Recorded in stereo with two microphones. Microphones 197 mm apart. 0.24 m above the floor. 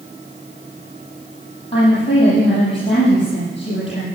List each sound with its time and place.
1.7 s a woman speaking: 30° left (ahead or behind), 8.5 m